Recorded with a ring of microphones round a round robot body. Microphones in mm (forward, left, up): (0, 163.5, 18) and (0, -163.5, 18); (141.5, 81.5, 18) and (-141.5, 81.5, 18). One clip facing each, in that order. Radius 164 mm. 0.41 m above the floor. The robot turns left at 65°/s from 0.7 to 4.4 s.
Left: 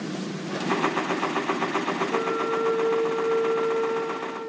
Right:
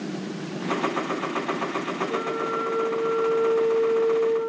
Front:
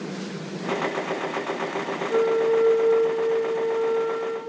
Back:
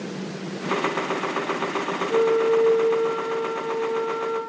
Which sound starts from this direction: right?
A flute, at 2.1 s.